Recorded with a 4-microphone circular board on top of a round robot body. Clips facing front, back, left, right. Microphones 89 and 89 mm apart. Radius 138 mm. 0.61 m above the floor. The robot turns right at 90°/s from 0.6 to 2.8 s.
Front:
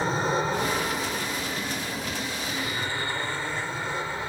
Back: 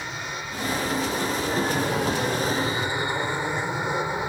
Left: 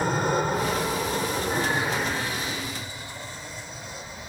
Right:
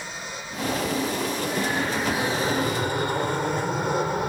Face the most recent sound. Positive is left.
turn(degrees=-110)